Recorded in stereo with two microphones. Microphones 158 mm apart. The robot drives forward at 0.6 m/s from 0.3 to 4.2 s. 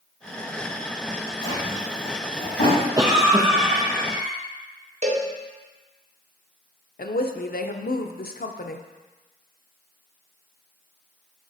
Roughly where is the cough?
Right.